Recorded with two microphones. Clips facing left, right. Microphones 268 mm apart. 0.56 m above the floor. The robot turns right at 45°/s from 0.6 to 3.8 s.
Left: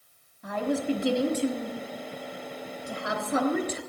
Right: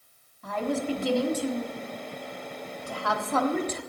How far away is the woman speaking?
About 1.2 m.